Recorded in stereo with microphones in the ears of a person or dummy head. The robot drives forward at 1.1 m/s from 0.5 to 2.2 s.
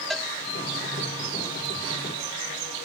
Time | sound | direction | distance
0.1 | a cowbell | centre (ahead or behind) | ?